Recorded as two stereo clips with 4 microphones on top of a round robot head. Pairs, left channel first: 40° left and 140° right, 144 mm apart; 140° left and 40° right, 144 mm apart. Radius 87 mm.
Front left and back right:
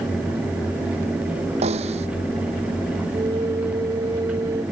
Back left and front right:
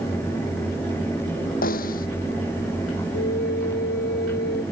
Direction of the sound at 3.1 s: 155° left.